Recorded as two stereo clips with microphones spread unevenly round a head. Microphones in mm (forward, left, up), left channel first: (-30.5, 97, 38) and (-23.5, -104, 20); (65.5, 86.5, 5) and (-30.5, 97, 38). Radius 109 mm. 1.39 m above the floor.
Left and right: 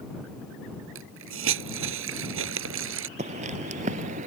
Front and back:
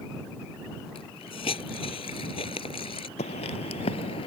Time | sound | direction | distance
0.9 | a hiss | 60° right | ?
3.2 | footsteps | 30° right | ?